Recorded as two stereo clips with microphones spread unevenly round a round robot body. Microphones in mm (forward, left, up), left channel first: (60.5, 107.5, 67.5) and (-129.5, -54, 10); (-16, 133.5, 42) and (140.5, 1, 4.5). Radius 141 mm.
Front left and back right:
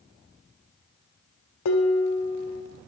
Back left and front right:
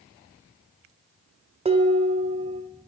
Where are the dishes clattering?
10° left, 0.8 m.